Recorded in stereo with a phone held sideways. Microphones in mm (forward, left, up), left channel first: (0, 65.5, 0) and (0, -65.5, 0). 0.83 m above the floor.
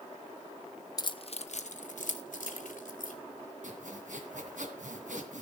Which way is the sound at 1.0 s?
30° left (ahead or behind).